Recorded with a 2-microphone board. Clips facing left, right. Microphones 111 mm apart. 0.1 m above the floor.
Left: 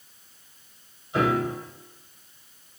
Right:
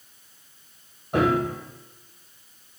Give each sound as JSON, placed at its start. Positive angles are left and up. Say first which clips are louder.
{"t": 1.1, "sound": "a piano", "louder": "right 2 dB", "side_deg": -60, "distance_m": 3.0}